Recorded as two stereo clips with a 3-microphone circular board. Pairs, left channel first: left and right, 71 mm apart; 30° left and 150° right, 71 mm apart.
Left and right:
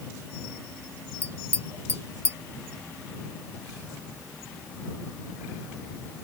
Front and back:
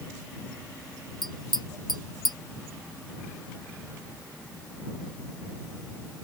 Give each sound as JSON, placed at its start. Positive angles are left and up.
{"t": 1.2, "sound": "tapping", "azimuth_deg": -140}